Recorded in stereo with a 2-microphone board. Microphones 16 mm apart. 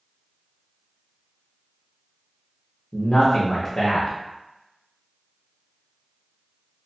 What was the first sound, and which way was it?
A man speaking, 25° left (ahead or behind).